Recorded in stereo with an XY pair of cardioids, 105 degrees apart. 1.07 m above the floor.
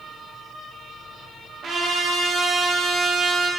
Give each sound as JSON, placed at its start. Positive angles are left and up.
{"t": 1.6, "sound": "a trumpet", "azimuth_deg": -65, "distance_m": 0.9}